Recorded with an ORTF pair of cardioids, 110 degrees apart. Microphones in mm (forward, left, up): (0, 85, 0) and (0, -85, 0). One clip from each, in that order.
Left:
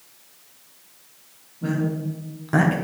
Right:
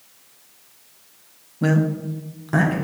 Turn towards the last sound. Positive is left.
turn(degrees=15)